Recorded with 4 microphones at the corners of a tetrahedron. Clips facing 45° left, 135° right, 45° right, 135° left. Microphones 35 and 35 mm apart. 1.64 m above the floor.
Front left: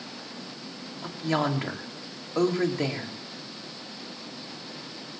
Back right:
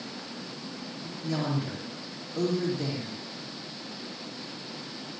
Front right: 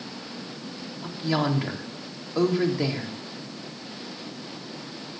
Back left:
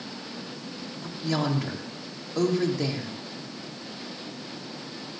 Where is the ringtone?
No ringtone in this recording.